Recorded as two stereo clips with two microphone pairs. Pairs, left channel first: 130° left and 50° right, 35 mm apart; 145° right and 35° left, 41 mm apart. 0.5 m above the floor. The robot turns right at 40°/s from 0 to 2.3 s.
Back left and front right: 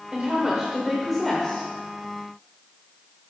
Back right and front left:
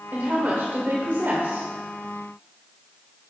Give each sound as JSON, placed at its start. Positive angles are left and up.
{"t": 0.1, "sound": "a woman speaking", "azimuth_deg": 0, "distance_m": 1.6}